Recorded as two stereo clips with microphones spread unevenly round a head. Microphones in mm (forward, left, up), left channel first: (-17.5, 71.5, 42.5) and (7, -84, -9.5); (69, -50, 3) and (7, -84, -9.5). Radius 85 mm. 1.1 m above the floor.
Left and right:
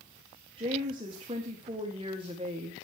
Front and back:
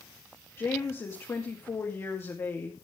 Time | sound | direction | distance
0.6 | a woman speaking | 30° right | 2.5 m